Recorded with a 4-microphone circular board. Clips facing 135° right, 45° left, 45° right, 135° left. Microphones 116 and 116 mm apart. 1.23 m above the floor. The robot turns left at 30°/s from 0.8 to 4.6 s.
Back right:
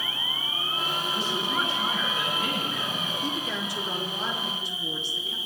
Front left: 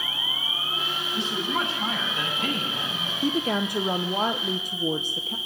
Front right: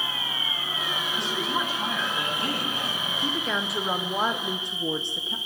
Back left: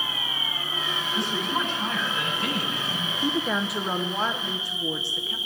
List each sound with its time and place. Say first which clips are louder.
0.0 s an insect: even, even; 35° right, 5 m; by 5.5 s 150° right, 5 m
1.1 s a woman speaking: front left 4 dB, back left 2 dB; 50° left, 8.5 m; by 3.1 s 10° right, 8.5 m
3.2 s a woman speaking: front left 11 dB, back left 4 dB; 60° left, 0.6 m; by 5.4 s 20° left, 0.6 m